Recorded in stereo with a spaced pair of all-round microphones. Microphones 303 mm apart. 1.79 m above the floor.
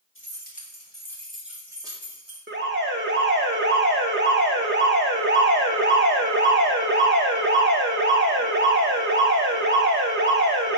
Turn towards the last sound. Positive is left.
turn(degrees=-35)  # may be behind; listen again after turning